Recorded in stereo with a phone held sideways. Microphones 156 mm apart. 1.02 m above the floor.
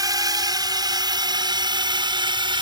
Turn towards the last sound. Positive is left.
turn(degrees=-35)  # may be behind; listen again after turning